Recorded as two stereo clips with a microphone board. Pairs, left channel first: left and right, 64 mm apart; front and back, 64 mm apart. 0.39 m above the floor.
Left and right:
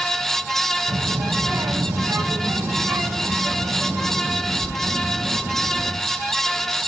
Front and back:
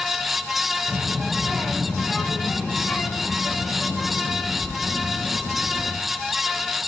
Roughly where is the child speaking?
Right.